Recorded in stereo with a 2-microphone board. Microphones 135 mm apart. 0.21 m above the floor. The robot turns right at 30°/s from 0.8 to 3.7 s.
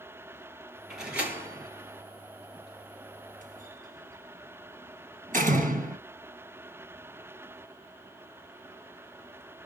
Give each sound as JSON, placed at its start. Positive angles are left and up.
{"t": 0.9, "sound": "a door slam", "side_deg": 0, "distance_m": 2.0}